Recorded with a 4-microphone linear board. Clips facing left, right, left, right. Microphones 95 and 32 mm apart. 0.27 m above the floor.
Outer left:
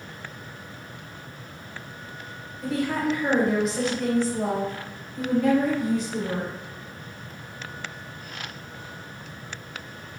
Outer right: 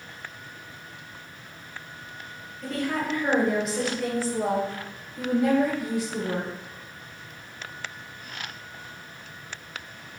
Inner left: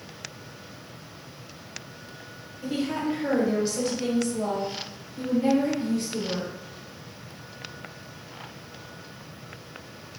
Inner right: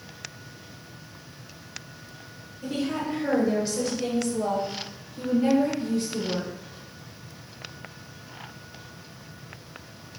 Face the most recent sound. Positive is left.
turn(degrees=-10)  # may be behind; listen again after turning